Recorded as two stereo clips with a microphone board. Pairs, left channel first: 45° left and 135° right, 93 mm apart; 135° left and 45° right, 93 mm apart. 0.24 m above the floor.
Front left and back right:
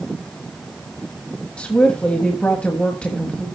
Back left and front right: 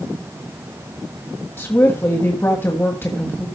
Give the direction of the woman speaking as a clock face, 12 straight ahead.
8 o'clock.